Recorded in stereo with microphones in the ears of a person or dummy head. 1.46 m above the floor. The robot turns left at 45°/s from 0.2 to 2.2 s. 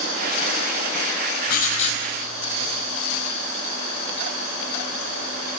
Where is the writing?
55° left (ahead or behind), 4.5 m; by 2.0 s 30° left (ahead or behind), 4.5 m.